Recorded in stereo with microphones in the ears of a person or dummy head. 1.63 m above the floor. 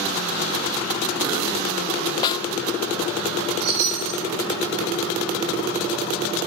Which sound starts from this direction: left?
A snare drum, at 2.2 s.